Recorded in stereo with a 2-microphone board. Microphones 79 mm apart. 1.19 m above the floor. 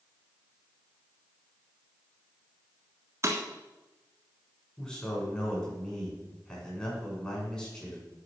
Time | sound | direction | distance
3.2 | breaking glass | 40° right (ahead or behind) | 1.6 m
4.8 | a man speaking | 10° left (ahead or behind) | 6 m